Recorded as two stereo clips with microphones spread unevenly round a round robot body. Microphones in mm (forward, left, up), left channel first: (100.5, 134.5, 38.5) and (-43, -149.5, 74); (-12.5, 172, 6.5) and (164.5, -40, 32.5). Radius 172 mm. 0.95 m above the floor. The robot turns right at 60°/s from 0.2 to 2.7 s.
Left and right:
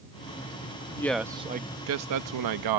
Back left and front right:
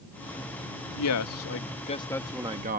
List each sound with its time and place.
1.0 s a man speaking: 140° left; by 2.8 s 115° right